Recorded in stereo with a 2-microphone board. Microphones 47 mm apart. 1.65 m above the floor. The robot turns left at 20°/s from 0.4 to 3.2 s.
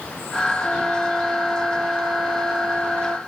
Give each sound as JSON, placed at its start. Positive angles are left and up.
{"t": 0.6, "sound": "a flute", "azimuth_deg": -15, "distance_m": 1.3}